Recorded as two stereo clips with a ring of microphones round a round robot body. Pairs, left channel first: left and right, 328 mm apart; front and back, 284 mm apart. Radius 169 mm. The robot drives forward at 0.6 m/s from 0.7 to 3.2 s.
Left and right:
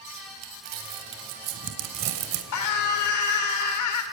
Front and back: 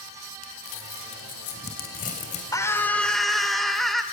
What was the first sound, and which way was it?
Crumpling, 45° right.